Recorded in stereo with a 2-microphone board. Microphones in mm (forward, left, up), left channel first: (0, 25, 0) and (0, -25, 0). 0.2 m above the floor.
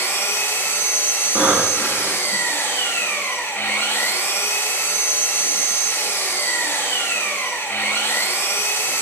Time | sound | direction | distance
0.0 | an engine running | 45° left (ahead or behind) | 1.3 m
1.4 | breathing | 40° right (ahead or behind) | 1.5 m